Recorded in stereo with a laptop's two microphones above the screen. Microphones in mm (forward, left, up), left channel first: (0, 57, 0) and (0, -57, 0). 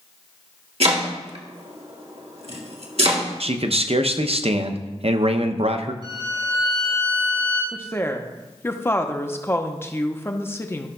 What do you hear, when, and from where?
0.8 s chopping: 60° right (ahead or behind), 1.4 m
3.4 s a man speaking: 60° right (ahead or behind), 0.6 m
6.0 s a violin: 45° right (ahead or behind), 4.5 m
7.7 s a woman speaking: 20° left (ahead or behind), 0.6 m